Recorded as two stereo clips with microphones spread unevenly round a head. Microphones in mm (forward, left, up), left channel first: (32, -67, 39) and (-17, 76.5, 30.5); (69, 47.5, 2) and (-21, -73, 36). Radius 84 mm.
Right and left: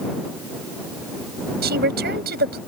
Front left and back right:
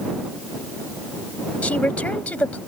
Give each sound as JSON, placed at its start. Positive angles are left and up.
{"t": 1.6, "sound": "a woman speaking", "azimuth_deg": 135}